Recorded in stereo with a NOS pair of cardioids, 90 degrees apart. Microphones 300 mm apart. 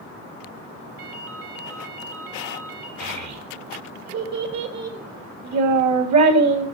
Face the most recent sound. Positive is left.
turn(degrees=-60)